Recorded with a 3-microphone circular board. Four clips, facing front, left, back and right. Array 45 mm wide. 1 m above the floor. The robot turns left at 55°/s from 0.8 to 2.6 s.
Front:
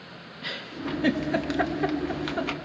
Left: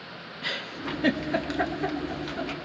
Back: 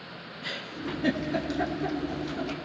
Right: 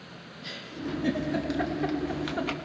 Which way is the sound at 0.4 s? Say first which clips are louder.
Left 4 dB, front 2 dB; 65° left.